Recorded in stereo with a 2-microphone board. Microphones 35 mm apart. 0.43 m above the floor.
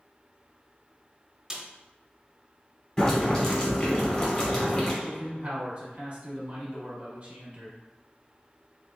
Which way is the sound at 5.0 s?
40° right (ahead or behind).